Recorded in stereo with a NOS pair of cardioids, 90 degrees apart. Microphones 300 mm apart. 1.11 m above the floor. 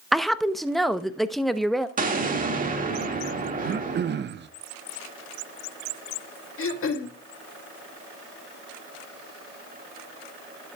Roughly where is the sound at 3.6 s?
Ahead right.